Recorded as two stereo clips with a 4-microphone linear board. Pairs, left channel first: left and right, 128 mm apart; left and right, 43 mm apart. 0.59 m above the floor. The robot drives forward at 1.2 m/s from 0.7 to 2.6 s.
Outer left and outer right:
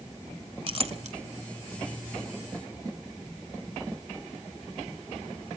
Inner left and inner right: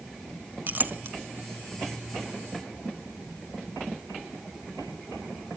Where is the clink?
45° right (ahead or behind), 1.4 m; by 1.2 s 65° right (ahead or behind), 1.1 m.